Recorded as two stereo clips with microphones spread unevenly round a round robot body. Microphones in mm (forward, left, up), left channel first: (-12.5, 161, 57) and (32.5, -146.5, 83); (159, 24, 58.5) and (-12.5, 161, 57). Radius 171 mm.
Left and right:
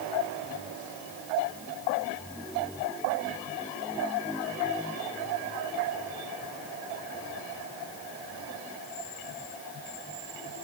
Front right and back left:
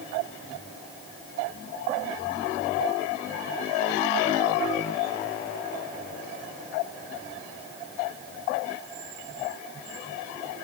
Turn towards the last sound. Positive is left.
No sound to turn to.